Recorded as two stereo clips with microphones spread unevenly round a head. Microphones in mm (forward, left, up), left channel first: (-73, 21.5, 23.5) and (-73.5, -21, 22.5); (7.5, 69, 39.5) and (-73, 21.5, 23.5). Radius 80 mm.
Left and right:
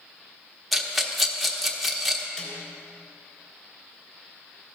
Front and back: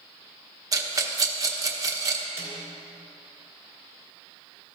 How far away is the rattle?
About 1.1 m.